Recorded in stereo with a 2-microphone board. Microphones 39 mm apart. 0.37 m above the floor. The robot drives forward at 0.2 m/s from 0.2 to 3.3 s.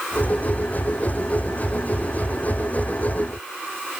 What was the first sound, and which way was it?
Only background noise.